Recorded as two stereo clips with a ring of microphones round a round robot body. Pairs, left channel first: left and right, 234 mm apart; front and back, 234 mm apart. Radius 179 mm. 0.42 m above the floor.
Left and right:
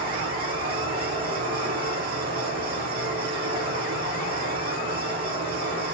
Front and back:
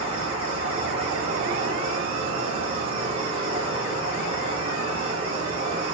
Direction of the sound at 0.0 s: 135° right.